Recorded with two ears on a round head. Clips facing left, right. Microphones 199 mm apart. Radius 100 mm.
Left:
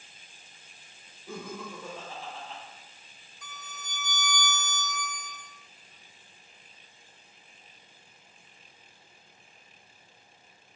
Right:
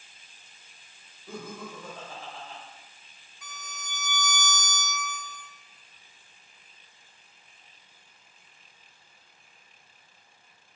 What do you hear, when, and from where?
1.3 s laughter: 10° left (ahead or behind), 1.2 m
3.4 s a violin: 60° right (ahead or behind), 0.9 m